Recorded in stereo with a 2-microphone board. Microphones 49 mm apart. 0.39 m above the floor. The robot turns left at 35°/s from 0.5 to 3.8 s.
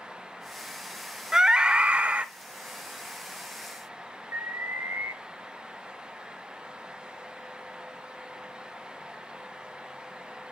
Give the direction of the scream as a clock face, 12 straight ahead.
1 o'clock.